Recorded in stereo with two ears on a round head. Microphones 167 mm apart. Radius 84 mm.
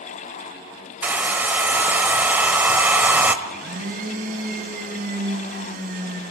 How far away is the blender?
About 4 m.